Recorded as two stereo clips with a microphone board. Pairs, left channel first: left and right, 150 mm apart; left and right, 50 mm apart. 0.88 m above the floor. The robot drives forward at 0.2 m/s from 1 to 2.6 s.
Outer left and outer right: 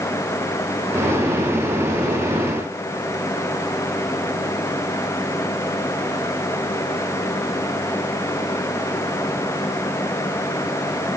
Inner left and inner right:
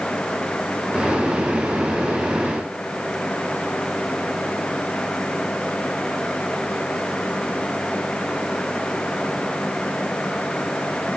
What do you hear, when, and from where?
Only background noise.